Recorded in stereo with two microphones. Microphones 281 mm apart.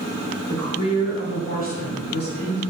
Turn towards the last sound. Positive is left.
turn(degrees=40)  # may be behind; listen again after turning